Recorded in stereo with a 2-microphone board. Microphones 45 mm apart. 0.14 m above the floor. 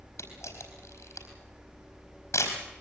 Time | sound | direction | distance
0.2 | a camera shutter | 75° left (ahead or behind) | 4.5 m